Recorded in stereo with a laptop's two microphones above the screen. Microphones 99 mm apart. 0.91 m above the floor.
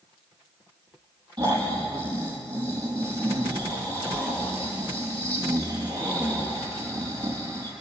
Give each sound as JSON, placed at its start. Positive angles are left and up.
{"t": 1.4, "sound": "snoring", "side_deg": -45, "distance_m": 5.0}